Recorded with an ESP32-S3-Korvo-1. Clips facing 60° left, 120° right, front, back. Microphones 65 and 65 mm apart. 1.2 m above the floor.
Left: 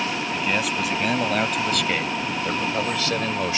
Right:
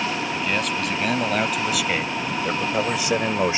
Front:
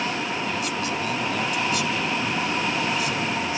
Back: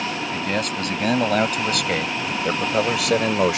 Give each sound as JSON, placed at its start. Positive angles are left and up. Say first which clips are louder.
{"t": 0.3, "sound": "a man speaking", "louder": "even, back 2 dB", "azimuth_deg": 145}